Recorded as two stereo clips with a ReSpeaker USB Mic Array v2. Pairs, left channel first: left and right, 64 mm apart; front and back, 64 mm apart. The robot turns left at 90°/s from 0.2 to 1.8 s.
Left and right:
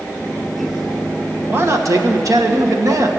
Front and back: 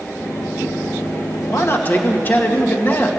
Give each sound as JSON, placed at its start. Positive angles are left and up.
{"t": 1.5, "sound": "a man speaking", "azimuth_deg": -30, "distance_m": 1.5}